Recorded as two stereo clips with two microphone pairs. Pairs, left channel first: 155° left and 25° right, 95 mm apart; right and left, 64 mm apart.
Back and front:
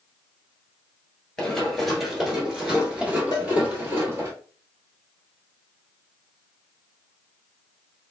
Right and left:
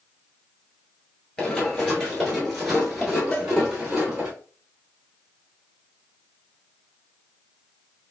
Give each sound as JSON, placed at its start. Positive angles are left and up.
{"t": 1.4, "sound": "running footsteps", "azimuth_deg": -145, "distance_m": 1.3}
{"t": 3.3, "sound": "a cowbell", "azimuth_deg": -160, "distance_m": 0.9}